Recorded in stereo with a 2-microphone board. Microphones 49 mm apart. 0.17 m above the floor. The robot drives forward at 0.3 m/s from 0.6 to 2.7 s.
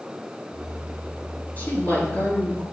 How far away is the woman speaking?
About 3 m.